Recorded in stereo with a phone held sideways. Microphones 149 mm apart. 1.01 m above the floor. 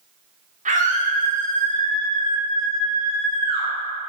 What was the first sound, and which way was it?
A scream, 60° right (ahead or behind).